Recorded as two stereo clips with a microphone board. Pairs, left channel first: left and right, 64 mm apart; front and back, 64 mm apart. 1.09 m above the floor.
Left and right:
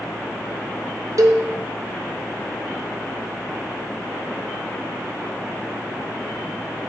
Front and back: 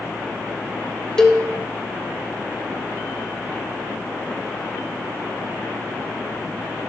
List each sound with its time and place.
1.2 s a cowbell: 80° right, 0.5 m